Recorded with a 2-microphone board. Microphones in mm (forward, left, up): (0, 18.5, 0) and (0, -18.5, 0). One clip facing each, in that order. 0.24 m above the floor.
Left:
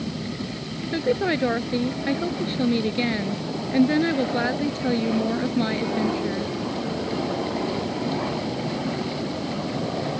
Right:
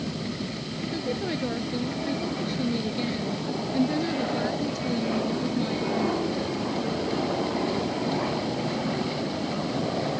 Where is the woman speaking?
50° left (ahead or behind).